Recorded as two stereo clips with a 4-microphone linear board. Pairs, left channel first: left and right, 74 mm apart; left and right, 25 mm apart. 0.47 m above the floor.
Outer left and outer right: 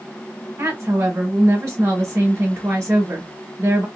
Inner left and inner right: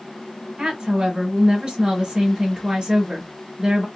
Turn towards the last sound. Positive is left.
turn(degrees=-35)  # may be behind; listen again after turning